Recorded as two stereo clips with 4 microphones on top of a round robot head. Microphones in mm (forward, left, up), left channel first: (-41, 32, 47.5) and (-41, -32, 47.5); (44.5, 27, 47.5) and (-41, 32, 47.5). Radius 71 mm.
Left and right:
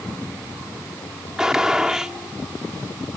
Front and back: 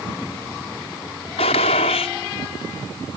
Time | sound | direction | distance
1.4 | a gunshot | 5° right | ?